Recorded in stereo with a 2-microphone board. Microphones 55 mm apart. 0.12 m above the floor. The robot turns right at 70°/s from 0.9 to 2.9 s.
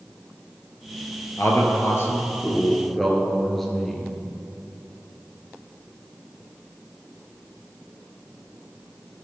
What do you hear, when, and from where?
1.4 s a man speaking: 65° left, 2.5 m; by 4.2 s 175° left, 2.5 m